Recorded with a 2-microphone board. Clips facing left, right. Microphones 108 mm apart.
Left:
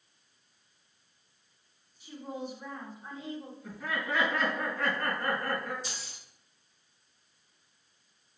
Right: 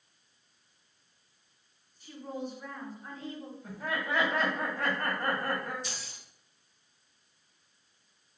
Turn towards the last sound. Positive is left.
turn(degrees=30)  # may be behind; listen again after turning